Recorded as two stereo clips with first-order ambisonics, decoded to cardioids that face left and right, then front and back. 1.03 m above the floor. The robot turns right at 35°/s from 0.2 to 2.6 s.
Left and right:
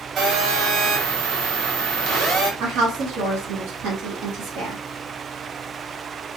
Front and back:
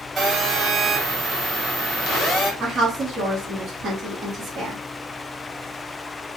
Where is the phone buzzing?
120° right, 0.9 m; by 2.5 s 40° right, 0.9 m.